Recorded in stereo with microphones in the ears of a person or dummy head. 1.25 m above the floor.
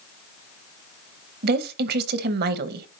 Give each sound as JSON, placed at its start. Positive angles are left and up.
{"t": 1.4, "sound": "a woman speaking", "side_deg": -65, "distance_m": 0.8}